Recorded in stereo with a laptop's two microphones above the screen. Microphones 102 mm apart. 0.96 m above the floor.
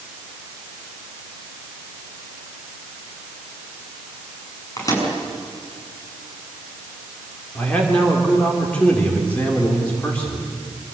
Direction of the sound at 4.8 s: 35° left (ahead or behind).